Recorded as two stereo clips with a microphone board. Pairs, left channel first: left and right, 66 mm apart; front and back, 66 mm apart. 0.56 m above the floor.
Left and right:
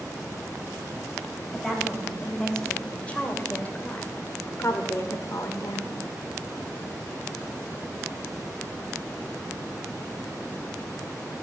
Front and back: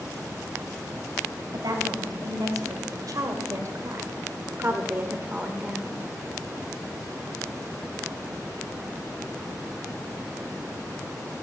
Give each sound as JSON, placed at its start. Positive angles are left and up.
{"t": 1.5, "sound": "a woman speaking", "azimuth_deg": 175, "distance_m": 3.5}